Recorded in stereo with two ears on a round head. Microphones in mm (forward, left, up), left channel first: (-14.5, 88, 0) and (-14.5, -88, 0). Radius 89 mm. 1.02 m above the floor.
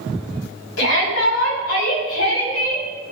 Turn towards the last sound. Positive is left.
turn(degrees=85)